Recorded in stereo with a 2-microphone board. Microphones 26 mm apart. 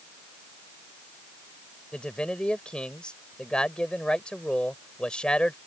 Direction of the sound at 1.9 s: 45° left (ahead or behind).